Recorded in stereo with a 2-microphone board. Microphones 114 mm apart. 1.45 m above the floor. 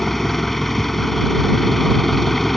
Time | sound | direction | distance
0.0 | an engine running | centre (ahead or behind) | ?